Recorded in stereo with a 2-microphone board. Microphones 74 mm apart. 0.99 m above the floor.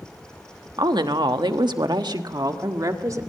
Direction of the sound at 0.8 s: 70° right (ahead or behind).